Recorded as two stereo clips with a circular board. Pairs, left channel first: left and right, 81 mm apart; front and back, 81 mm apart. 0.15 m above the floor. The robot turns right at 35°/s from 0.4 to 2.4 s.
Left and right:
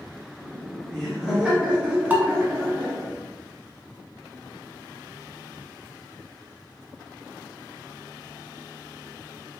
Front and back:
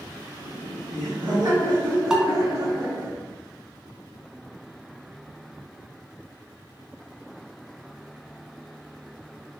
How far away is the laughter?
About 1.9 m.